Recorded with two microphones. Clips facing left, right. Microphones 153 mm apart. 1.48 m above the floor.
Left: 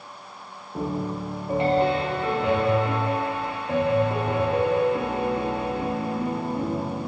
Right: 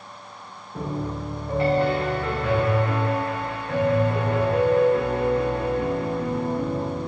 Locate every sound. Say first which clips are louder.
0.8 s a piano: left 1 dB; 20° left (ahead or behind), 0.6 m